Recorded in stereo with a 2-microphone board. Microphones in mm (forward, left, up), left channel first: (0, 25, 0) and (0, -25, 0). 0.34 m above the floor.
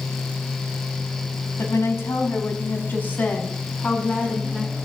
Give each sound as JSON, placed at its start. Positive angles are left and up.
{"t": 1.6, "sound": "a woman speaking", "side_deg": 60, "distance_m": 3.0}